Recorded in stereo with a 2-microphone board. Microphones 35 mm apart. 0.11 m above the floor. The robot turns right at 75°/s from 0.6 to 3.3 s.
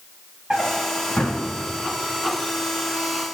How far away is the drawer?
About 3 m.